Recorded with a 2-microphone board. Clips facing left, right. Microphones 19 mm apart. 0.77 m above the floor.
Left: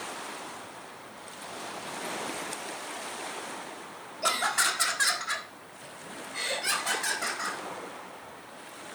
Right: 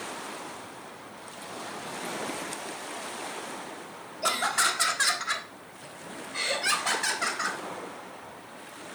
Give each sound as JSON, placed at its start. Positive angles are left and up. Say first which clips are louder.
{"t": 4.2, "sound": "laughter", "louder": "right 1 dB", "side_deg": 5, "distance_m": 1.3}